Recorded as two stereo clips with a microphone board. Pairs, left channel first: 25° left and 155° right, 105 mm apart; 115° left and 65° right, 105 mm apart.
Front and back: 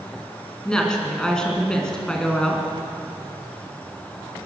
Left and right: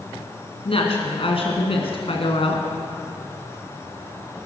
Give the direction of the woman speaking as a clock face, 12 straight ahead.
9 o'clock.